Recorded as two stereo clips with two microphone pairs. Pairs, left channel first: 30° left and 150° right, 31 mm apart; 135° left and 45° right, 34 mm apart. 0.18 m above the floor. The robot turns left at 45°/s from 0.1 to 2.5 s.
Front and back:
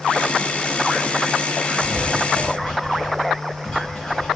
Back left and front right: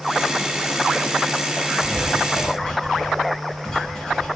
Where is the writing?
95° left, 1.4 m; by 4.4 s 65° left, 1.4 m.